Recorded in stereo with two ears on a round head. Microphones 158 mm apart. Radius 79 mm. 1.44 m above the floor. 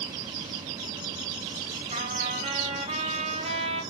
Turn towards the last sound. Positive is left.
turn(degrees=-40)  # may be behind; listen again after turning